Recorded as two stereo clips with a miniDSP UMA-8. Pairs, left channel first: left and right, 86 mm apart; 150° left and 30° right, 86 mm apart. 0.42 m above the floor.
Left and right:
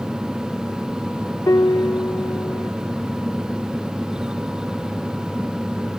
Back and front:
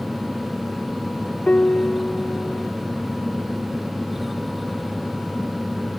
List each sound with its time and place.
1.5 s a piano: 85° left